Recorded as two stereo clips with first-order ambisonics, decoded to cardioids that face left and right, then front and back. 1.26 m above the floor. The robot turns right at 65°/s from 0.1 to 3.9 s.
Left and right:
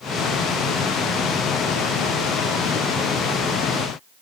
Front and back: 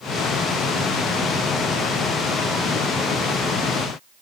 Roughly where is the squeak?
I don't hear a squeak.